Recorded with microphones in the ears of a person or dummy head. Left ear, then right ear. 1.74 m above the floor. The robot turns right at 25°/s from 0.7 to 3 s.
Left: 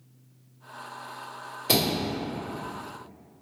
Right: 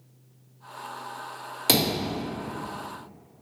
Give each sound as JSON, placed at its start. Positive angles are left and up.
{"t": 1.7, "sound": "a thud", "side_deg": -35, "distance_m": 1.4}